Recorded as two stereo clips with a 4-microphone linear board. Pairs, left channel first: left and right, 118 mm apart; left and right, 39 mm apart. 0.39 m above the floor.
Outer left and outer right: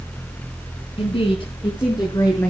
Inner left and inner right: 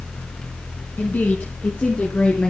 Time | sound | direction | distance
1.0 | a woman speaking | 55° left (ahead or behind) | 3.5 m